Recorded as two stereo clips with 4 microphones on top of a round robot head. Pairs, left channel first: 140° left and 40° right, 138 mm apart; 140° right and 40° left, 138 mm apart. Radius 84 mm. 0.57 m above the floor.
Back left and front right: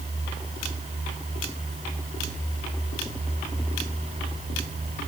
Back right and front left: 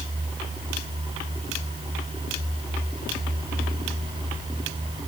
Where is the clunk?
No clunk in this recording.